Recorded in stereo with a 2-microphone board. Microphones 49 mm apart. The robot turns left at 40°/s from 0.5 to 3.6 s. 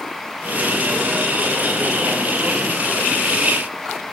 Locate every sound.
Only background noise.